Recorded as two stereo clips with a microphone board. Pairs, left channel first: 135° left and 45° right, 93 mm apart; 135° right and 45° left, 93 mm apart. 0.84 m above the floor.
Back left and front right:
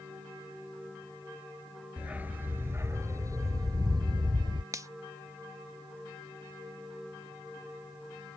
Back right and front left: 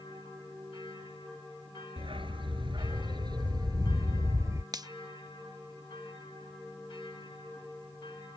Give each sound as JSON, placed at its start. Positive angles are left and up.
{"t": 2.0, "sound": "a dog barking", "azimuth_deg": 30}
{"t": 4.7, "sound": "a finger snap", "azimuth_deg": 5}